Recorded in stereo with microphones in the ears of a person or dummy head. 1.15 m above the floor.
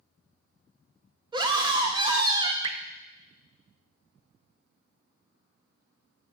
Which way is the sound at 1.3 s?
20° right (ahead or behind).